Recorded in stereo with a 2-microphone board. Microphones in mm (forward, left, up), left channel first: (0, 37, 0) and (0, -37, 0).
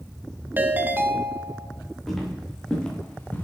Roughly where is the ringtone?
Right.